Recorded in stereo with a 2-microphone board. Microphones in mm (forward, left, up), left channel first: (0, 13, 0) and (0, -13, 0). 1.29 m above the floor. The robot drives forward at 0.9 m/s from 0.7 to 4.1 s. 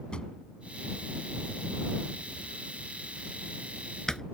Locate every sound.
0.1 s a drawer: 35° left (ahead or behind); by 4.2 s 20° left (ahead or behind)